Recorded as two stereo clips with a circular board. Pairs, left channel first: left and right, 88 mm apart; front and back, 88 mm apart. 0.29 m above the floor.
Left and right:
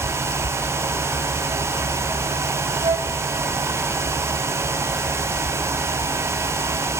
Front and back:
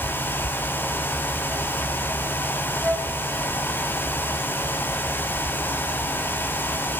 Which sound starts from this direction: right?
A flute, at 2.8 s.